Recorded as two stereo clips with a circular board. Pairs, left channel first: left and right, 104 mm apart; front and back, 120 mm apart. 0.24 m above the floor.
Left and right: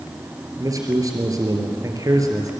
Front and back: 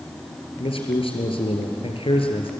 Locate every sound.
0.6 s a man speaking: 35° right, 4 m